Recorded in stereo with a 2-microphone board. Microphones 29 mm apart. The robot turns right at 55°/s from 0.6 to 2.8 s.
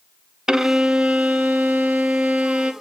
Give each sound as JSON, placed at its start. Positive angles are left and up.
{"t": 0.5, "sound": "a violin", "azimuth_deg": -155, "distance_m": 0.5}